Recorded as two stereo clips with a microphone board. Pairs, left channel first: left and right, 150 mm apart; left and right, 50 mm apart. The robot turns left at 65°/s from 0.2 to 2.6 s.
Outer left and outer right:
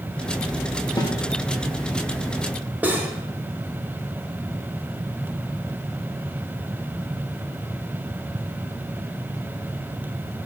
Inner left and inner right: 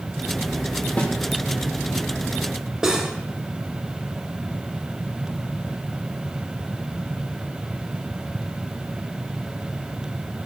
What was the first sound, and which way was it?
A snare drum, 25° left (ahead or behind).